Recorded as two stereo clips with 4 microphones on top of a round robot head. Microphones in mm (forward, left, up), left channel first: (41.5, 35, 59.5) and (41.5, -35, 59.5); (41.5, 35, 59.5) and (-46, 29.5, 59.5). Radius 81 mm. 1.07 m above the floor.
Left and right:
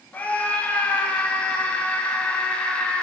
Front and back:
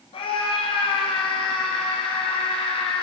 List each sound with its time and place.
0.1 s a scream: 20° left, 7.5 m; by 3.0 s 15° left, 8.5 m